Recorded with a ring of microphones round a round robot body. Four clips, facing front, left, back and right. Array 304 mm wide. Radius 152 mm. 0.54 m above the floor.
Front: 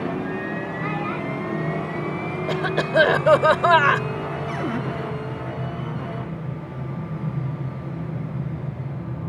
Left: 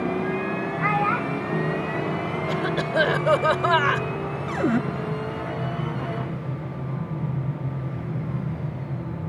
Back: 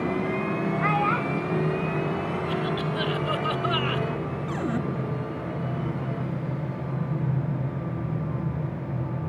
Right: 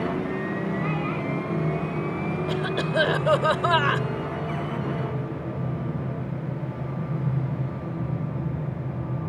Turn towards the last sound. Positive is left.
turn(degrees=85)